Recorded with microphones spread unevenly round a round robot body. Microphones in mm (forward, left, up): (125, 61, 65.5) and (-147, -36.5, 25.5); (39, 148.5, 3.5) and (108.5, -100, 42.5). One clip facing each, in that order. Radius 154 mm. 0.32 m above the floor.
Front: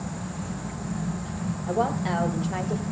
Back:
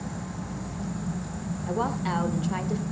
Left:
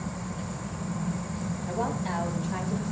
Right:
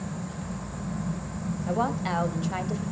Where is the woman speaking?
95° right, 1.5 m.